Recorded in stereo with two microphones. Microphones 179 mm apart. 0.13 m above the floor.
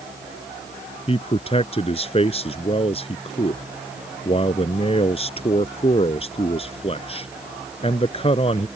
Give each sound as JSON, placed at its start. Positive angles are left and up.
{"t": 1.1, "sound": "a man speaking", "side_deg": 35}